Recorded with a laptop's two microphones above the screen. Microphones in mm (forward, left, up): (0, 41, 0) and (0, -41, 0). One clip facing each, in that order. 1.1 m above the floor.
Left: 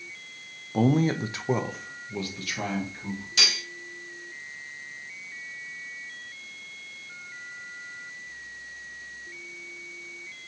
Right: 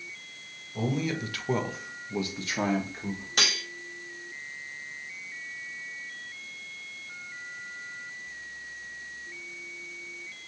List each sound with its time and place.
0.7 s a man speaking: 60° left (ahead or behind), 0.6 m; by 3.3 s 35° right (ahead or behind), 1.3 m
3.4 s cutlery clinking: 50° right (ahead or behind), 0.6 m